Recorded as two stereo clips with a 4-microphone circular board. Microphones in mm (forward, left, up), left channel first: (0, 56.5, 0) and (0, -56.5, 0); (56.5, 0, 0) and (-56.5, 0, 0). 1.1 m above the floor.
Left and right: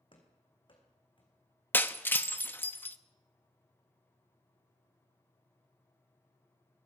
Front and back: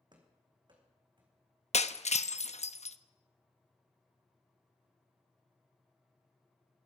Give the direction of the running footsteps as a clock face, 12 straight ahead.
8 o'clock.